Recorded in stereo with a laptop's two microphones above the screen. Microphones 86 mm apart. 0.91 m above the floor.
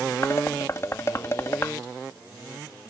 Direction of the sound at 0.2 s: 35° left (ahead or behind).